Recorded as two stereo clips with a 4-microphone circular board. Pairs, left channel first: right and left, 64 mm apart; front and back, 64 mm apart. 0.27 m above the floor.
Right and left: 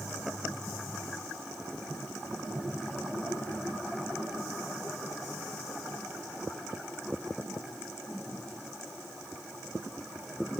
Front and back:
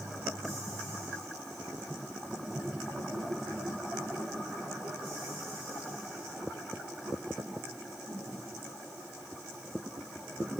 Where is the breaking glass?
I don't hear breaking glass.